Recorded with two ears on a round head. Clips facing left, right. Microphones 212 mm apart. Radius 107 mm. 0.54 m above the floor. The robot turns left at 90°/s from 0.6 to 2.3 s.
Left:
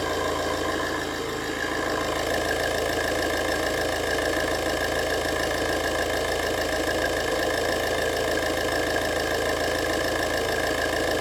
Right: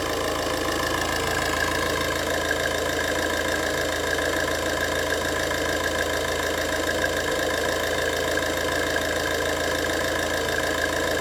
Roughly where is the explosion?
No explosion in this recording.